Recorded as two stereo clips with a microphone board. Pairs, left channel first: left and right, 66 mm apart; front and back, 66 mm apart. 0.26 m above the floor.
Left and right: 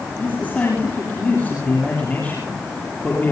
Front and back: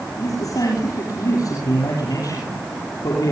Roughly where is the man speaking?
Ahead left.